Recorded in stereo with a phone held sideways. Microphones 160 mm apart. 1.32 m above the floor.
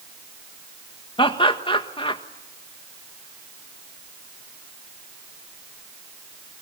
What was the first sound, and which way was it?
Laughter, 30° left (ahead or behind).